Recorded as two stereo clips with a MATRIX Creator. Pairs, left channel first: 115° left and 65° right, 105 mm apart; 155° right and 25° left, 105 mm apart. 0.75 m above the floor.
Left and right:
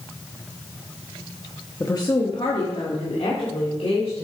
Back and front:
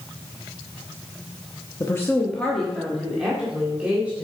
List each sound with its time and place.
1.8 s a woman speaking: 160° left, 0.8 m; by 4.2 s 100° left, 3 m